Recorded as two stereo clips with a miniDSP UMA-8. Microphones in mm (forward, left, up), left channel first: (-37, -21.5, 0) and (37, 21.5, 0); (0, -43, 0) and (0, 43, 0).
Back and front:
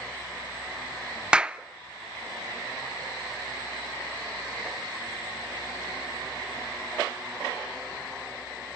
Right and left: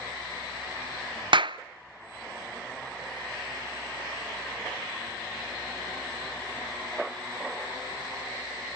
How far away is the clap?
About 0.5 m.